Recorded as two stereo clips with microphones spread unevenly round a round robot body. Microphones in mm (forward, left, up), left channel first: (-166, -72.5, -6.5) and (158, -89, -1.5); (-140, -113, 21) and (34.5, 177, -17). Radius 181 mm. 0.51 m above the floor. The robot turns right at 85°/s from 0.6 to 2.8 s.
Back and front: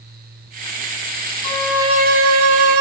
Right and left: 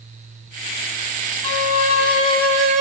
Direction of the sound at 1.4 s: 115° right.